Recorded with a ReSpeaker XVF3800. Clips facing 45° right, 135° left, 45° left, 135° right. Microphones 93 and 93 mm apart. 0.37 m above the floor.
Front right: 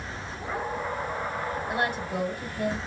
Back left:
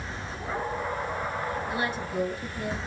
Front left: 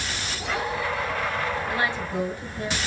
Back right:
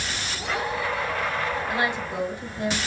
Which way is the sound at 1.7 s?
65° right.